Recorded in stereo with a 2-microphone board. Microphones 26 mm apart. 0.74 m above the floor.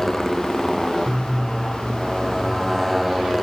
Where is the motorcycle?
10° left (ahead or behind); by 3.4 s centre (ahead or behind).